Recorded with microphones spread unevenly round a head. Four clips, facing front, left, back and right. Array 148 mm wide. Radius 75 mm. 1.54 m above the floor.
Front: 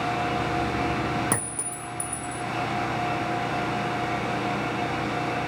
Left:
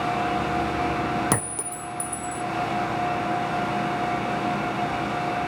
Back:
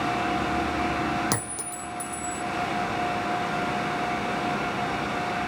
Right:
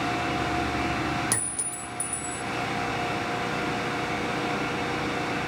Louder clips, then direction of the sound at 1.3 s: Left 7 dB, even; 85° left.